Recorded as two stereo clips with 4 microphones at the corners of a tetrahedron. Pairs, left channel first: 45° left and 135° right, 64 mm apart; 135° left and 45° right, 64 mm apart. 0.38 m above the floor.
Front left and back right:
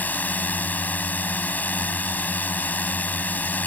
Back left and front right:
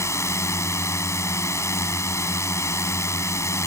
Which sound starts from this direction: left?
A drone, at 0.0 s.